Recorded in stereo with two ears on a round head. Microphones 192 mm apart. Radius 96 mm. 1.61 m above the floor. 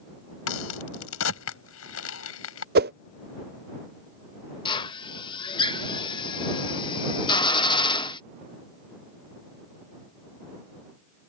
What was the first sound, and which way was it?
A crack, 75° left (ahead or behind).